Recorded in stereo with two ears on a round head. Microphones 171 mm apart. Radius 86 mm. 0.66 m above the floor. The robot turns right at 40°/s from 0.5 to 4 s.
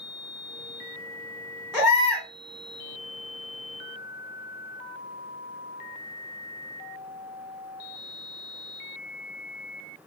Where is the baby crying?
10° right (ahead or behind), 1.6 m; by 2.3 s 30° right (ahead or behind), 1.6 m.